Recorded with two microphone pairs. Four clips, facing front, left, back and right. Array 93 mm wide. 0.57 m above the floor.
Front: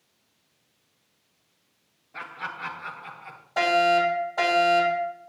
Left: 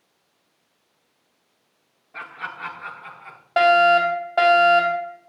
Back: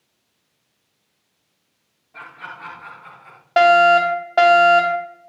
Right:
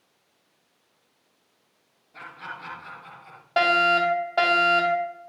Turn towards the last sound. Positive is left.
turn(degrees=150)